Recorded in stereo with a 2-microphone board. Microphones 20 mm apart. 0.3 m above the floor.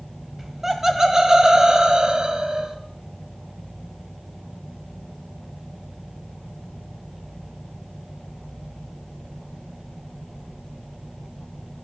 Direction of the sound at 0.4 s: 10° right (ahead or behind).